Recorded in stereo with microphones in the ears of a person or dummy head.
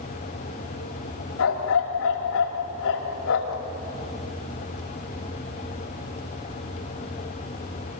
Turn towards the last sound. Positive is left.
turn(degrees=60)  # may be behind; listen again after turning